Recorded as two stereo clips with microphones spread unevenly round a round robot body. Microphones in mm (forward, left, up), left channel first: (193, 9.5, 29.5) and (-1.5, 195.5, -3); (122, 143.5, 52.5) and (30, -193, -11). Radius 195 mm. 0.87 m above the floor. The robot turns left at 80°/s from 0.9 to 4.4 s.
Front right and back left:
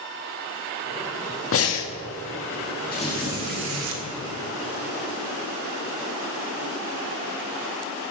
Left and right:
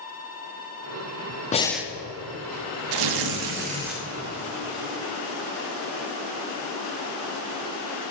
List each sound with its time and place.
1.5 s breathing: 5° left, 0.9 m; by 1.9 s 30° right, 0.9 m
2.9 s tearing paper: 110° right, 0.9 m; by 4.0 s 160° left, 0.9 m